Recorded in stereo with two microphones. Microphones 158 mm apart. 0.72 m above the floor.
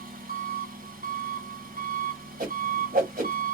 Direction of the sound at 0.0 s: 65° right (ahead or behind).